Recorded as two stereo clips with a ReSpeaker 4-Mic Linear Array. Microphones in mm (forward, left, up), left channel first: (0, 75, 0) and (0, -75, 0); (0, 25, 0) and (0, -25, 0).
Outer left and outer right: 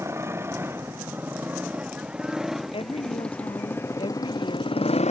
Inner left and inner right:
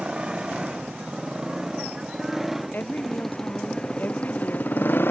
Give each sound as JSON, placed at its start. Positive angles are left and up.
{"t": 0.0, "sound": "a motorcycle", "side_deg": -20}
{"t": 2.7, "sound": "a woman speaking", "side_deg": 35}